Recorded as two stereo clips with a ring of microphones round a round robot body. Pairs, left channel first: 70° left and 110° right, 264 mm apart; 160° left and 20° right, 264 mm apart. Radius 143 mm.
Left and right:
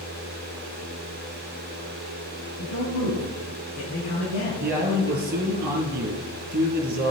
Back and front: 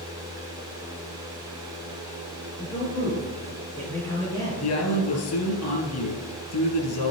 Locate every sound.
2.6 s a man speaking: 80° left, 6.5 m
4.6 s a man speaking: 170° right, 3.5 m